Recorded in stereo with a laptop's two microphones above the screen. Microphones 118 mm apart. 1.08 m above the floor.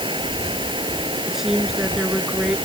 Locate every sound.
0.0 s running water: 45° right (ahead or behind)
1.3 s a woman speaking: 5° right (ahead or behind)